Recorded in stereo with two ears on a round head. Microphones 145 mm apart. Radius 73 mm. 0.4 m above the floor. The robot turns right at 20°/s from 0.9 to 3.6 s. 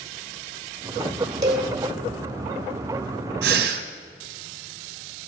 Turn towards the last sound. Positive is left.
turn(degrees=-80)